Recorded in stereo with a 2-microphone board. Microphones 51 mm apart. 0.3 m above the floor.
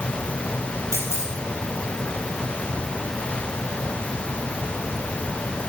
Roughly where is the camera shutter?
Right.